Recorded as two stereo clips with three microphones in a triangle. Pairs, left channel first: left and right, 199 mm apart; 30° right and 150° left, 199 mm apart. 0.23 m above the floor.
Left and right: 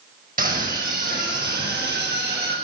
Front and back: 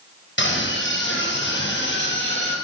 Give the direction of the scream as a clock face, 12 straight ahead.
2 o'clock.